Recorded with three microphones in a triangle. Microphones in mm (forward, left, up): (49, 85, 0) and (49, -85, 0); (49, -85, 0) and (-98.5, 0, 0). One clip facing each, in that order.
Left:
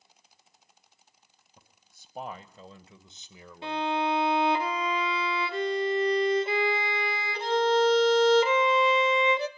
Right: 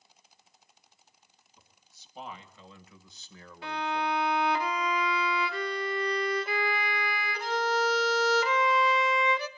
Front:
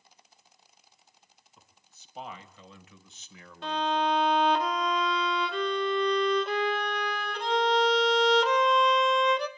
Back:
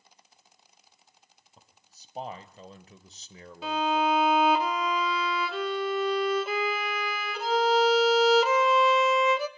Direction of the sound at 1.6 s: 105° left.